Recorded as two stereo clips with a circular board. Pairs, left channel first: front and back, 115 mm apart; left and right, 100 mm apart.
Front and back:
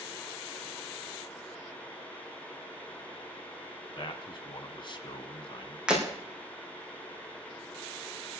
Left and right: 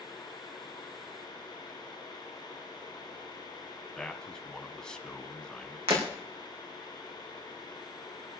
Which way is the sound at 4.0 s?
10° left.